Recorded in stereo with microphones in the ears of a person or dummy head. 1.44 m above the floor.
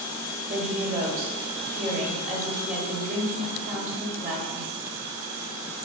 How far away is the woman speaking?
About 1.4 m.